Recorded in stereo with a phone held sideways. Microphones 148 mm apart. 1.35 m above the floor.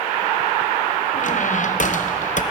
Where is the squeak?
60° left (ahead or behind), 0.6 m.